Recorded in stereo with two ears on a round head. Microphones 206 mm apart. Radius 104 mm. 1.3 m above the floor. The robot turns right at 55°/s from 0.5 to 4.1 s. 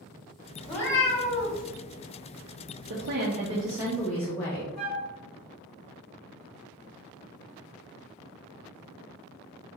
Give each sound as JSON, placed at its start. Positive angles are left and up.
{"t": 0.6, "sound": "a cat meowing", "azimuth_deg": 5, "distance_m": 0.9}
{"t": 2.9, "sound": "a woman speaking", "azimuth_deg": -60, "distance_m": 0.6}
{"t": 4.8, "sound": "a flute", "side_deg": 75, "distance_m": 1.1}